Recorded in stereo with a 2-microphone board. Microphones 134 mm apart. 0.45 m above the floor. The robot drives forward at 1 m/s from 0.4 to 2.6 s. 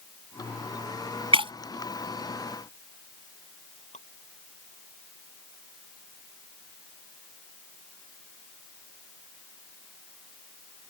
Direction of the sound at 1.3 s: 45° right (ahead or behind).